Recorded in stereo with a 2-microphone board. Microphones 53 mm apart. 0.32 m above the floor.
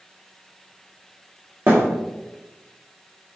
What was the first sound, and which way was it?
A thud, 40° right (ahead or behind).